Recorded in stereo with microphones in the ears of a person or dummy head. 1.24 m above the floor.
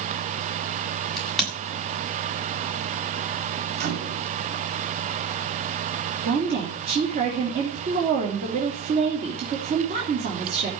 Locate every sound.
1.2 s a crack: centre (ahead or behind), 8 m
3.8 s a microwave: 50° right (ahead or behind), 3.5 m
6.2 s a woman speaking: 50° right (ahead or behind), 3 m